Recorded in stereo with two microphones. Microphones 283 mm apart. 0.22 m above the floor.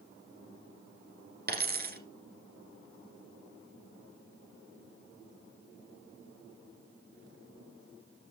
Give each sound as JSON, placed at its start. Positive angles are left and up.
{"t": 1.5, "sound": "a dropped coin", "side_deg": -35, "distance_m": 1.6}